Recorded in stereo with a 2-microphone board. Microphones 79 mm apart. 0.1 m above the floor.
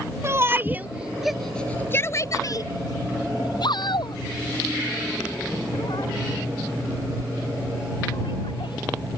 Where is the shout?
35° right (ahead or behind); by 8.8 s 75° left (ahead or behind).